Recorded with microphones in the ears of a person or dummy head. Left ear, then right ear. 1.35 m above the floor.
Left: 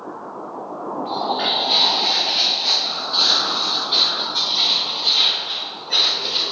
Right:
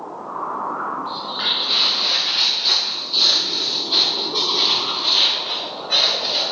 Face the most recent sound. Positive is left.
turn(degrees=-45)  # may be behind; listen again after turning